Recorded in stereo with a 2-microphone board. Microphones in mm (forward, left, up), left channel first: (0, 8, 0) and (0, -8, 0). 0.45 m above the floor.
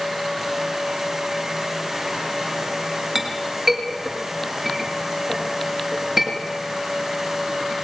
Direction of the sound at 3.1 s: 25° right (ahead or behind).